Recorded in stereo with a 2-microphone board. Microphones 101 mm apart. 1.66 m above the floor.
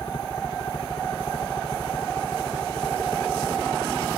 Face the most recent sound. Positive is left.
turn(degrees=55)  # may be behind; listen again after turning